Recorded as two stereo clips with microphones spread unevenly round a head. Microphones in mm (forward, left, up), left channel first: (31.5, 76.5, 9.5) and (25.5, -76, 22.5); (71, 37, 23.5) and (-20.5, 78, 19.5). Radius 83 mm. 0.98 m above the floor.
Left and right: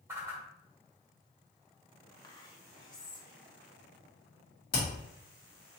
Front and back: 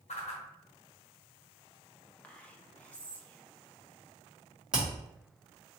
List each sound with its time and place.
0.1 s a whoosh: 20° right, 1.2 m
2.2 s whispering: 50° left, 1.0 m
4.7 s hammering: 75° left, 2.0 m